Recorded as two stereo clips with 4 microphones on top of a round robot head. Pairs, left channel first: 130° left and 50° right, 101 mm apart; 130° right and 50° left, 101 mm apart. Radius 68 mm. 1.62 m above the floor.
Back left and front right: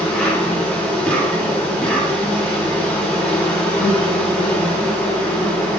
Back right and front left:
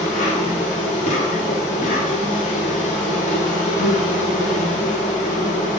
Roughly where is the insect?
Behind right.